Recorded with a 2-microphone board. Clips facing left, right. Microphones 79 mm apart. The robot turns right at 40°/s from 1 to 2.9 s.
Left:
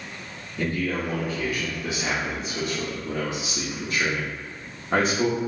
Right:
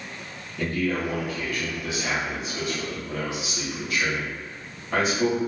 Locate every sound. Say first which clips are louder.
0.6 s a man speaking: right 1 dB; 20° left, 0.8 m; by 5.4 s 95° left, 0.8 m